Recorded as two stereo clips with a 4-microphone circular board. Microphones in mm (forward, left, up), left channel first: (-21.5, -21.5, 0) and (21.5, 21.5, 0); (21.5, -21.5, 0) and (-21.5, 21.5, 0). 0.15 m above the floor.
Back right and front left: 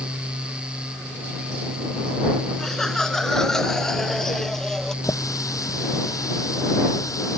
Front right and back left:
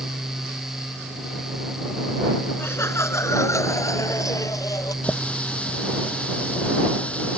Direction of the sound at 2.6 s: 55° right.